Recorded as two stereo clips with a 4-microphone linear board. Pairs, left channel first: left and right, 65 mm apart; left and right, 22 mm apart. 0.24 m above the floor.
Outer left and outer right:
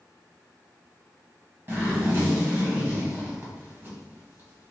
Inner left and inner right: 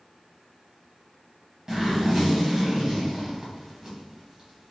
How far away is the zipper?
About 1.2 m.